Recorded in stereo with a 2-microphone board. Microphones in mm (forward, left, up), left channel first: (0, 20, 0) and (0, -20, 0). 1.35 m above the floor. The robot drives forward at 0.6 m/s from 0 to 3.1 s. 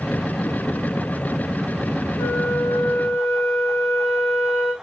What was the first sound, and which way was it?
A flute, 85° left.